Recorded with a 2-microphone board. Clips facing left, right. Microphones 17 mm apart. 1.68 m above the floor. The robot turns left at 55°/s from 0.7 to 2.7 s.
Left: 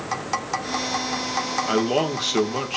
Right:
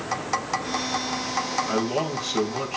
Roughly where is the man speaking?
Left.